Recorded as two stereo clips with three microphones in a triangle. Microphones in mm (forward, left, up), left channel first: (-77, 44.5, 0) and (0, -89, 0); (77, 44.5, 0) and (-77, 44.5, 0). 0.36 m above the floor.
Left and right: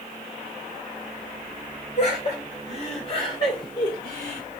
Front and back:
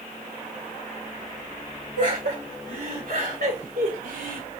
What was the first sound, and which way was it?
Laughter, 155° left.